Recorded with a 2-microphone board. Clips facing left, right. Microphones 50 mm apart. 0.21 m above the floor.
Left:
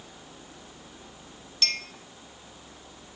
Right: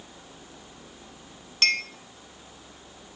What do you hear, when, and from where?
1.6 s a clink: 50° right (ahead or behind), 0.9 m